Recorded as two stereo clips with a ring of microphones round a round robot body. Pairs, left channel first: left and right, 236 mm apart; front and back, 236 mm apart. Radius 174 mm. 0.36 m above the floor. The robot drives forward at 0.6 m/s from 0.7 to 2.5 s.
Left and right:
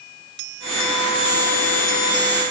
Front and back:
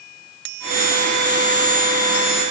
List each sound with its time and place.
Only background noise.